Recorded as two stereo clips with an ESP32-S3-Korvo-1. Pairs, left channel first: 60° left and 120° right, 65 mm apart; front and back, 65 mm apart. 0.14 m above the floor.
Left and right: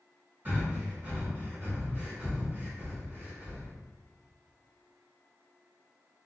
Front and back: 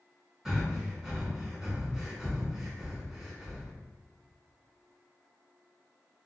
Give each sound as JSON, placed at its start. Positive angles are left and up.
{"t": 0.5, "sound": "breathing", "azimuth_deg": -115, "distance_m": 1.4}